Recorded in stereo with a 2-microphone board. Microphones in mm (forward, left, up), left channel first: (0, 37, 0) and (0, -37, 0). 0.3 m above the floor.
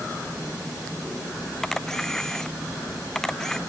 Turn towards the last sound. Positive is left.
turn(degrees=5)  # may be behind; listen again after turning